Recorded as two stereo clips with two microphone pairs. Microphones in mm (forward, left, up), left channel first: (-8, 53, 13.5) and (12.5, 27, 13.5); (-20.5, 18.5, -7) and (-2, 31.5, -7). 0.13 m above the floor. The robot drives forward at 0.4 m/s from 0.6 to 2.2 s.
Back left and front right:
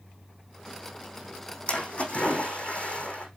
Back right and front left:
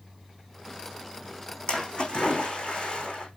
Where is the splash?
175° left, 4 m.